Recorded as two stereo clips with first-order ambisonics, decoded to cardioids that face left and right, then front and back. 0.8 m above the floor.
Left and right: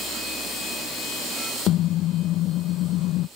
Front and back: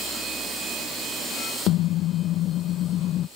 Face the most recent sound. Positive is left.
turn(degrees=50)